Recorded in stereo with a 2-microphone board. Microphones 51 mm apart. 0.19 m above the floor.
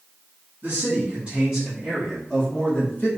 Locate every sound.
0.6 s a man speaking: 35° right (ahead or behind), 1.6 m; by 3.1 s 40° left (ahead or behind), 1.4 m